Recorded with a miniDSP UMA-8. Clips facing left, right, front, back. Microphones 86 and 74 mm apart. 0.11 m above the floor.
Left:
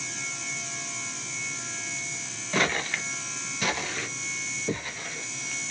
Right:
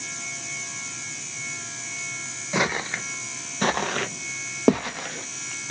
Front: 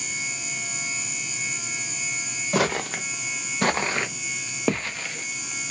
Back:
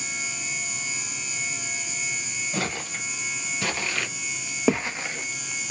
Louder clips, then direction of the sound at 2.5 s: Right 2 dB, front 8 dB; 10° right.